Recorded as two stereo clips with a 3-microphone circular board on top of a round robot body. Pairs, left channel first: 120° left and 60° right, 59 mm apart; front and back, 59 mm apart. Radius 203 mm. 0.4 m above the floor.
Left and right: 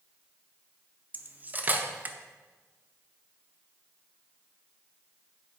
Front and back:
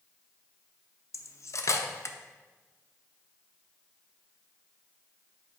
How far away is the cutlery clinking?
About 0.5 m.